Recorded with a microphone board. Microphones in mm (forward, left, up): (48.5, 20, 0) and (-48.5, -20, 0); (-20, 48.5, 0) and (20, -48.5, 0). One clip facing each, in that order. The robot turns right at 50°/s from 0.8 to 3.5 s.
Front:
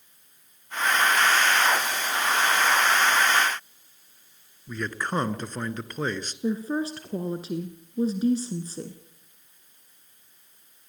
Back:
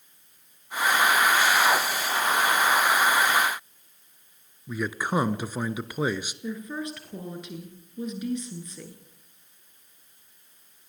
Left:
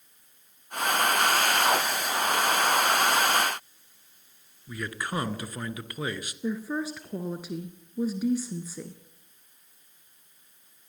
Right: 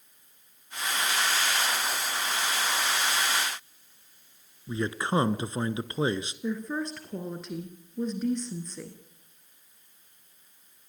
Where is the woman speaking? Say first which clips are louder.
Front 9 dB, left 2 dB; 35° left, 1.7 m.